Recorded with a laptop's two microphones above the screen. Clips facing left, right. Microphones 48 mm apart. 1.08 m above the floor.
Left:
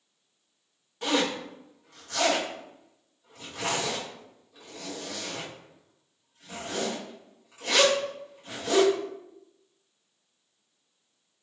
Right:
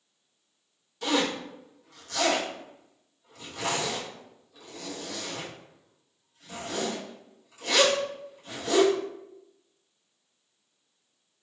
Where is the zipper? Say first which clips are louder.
Even; 25° left (ahead or behind), 1.1 m.